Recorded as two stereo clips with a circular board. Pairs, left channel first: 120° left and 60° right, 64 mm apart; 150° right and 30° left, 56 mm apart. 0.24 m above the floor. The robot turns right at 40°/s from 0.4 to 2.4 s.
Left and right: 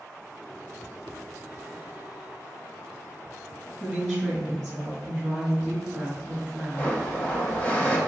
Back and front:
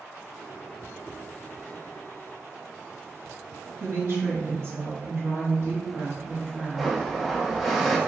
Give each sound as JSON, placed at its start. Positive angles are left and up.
{"t": 3.8, "sound": "a woman speaking", "azimuth_deg": 40, "distance_m": 1.8}
{"t": 6.8, "sound": "a blender", "azimuth_deg": 115, "distance_m": 0.5}